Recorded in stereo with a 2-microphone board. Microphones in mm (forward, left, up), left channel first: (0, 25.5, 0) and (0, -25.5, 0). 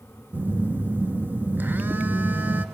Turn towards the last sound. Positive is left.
turn(degrees=-45)  # may be behind; listen again after turning